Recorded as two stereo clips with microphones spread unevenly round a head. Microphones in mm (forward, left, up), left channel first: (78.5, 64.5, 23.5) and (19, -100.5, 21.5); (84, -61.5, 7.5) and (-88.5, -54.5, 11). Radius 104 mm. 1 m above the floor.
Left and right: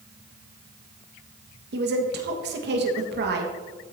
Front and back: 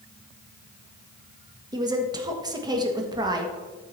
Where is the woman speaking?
115° right, 1.5 m.